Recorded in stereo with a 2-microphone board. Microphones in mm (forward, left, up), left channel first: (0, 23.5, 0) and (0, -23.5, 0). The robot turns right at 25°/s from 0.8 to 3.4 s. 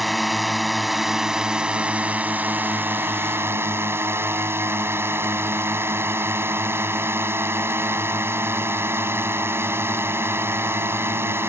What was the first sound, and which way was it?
A drone, straight behind.